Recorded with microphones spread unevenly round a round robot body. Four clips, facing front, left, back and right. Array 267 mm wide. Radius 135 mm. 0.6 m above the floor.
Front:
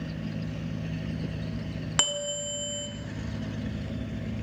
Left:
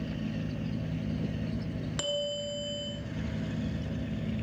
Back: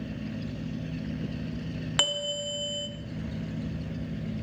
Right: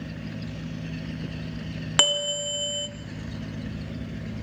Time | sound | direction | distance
2.0 | a bell | 90° right | 0.9 m